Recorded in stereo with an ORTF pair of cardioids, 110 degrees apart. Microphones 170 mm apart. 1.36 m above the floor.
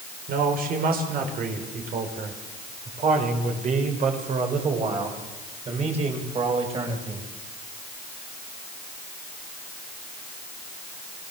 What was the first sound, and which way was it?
A man speaking, 65° right.